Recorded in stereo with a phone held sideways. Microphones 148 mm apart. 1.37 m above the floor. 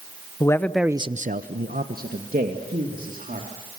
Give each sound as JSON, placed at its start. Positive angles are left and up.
{"t": 0.4, "sound": "a man speaking", "side_deg": 20, "distance_m": 1.1}